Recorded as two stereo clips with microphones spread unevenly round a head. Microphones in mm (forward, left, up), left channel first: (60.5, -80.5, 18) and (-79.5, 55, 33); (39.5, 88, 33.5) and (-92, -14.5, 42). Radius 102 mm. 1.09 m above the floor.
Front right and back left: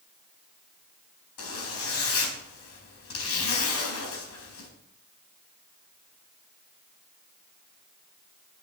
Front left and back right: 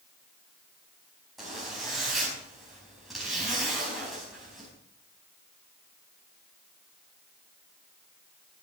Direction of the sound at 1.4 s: 55° right.